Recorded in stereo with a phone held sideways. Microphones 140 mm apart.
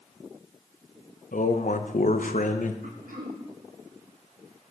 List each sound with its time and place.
1.3 s a man speaking: 70° left (ahead or behind), 0.7 m
2.8 s throat clearing: 75° right (ahead or behind), 1.3 m